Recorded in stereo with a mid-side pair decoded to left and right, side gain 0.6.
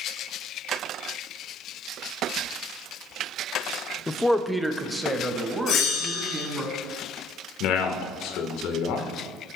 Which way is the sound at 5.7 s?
55° left.